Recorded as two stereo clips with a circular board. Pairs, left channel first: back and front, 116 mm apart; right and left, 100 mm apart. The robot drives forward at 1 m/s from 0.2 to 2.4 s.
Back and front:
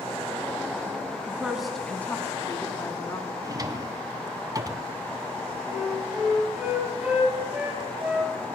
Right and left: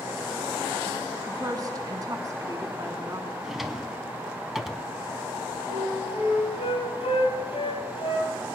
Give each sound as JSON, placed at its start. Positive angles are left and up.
{"t": 1.3, "sound": "a woman speaking", "azimuth_deg": 65, "distance_m": 1.5}
{"t": 3.4, "sound": "a drawer", "azimuth_deg": 5, "distance_m": 0.7}
{"t": 5.7, "sound": "a flute", "azimuth_deg": -80, "distance_m": 2.5}